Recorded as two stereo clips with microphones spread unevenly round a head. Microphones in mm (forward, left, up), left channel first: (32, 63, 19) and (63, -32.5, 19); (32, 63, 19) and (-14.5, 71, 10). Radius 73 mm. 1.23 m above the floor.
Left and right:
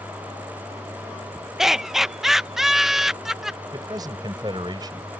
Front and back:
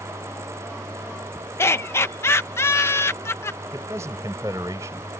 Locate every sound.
1.6 s laughter: 15° left
3.7 s a man speaking: 135° right